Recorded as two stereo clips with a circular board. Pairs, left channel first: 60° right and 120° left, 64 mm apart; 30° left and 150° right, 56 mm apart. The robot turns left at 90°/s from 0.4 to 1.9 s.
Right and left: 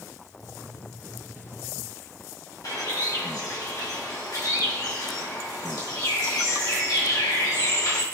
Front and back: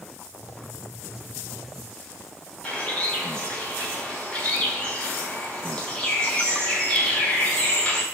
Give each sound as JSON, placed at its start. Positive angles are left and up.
{"t": 2.6, "sound": "a bird", "azimuth_deg": -45, "distance_m": 3.5}